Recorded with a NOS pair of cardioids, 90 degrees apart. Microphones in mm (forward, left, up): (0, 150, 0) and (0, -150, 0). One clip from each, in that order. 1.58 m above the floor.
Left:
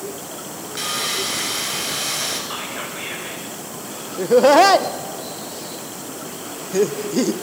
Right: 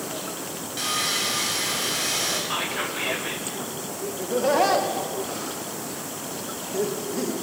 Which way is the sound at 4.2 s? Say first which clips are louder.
Left 10 dB; 65° left.